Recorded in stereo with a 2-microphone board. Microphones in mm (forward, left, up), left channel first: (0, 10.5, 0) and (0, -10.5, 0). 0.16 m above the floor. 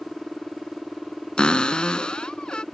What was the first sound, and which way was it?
A cupboard door, 50° left (ahead or behind).